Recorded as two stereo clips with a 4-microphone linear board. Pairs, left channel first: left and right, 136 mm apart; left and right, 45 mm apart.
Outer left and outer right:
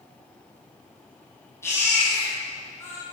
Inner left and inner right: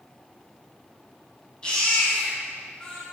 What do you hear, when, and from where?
1.6 s a baby crying: 20° left (ahead or behind), 3 m